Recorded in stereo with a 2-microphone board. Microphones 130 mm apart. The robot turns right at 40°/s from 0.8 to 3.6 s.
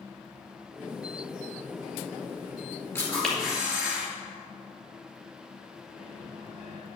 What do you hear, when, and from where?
3.0 s a camera shutter: 20° left (ahead or behind), 2.5 m; by 4.1 s 5° right (ahead or behind), 2.5 m
5.9 s a microwave: 55° left (ahead or behind), 2.5 m